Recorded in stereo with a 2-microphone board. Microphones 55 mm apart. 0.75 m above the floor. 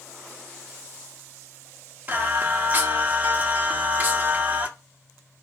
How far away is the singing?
About 0.6 m.